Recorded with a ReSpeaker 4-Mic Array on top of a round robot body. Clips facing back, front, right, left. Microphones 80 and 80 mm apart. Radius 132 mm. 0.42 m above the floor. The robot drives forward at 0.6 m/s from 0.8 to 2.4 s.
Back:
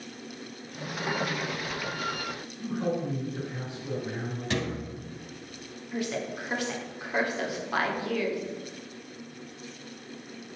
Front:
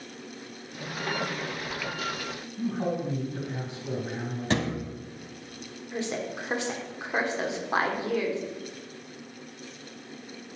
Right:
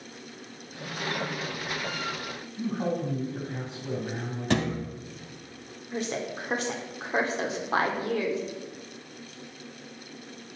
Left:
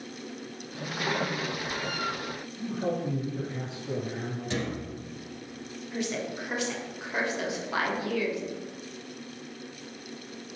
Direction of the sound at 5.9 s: 55° right.